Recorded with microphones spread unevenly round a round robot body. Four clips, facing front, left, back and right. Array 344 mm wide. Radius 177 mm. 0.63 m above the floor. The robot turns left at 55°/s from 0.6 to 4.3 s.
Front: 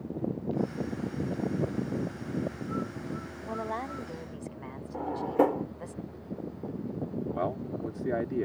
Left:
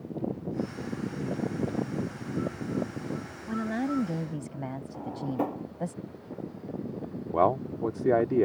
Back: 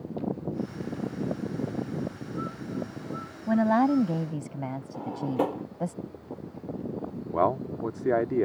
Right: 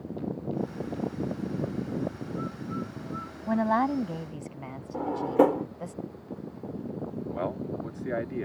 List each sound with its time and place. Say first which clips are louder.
3.5 s a woman speaking: right 5 dB, back 13 dB; 160° right; by 5.9 s 155° left
4.9 s a drawer: right 10 dB, front 3 dB; 85° right
7.3 s a man speaking: left 10 dB, back 11 dB; 130° left